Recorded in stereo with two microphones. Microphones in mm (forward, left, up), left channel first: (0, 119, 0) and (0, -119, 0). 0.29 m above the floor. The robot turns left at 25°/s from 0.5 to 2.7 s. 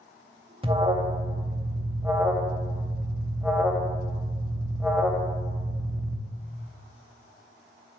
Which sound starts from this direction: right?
An alarm, at 0.6 s.